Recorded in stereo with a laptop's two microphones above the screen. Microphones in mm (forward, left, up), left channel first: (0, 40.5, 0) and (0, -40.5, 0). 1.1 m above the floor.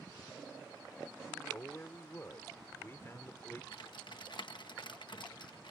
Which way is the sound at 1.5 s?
30° left (ahead or behind).